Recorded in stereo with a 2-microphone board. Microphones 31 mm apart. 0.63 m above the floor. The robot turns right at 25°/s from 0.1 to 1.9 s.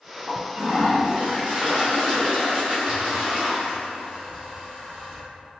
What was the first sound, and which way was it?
A toilet flushing, 75° right.